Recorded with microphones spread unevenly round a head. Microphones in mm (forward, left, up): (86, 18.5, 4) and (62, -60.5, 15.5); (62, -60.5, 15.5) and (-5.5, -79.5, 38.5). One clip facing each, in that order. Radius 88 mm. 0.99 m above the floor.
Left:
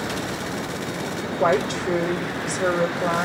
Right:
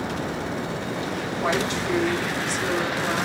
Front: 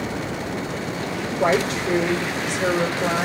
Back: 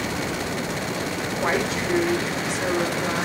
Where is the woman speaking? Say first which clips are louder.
Left 5 dB, front 5 dB; 60° left, 4 m.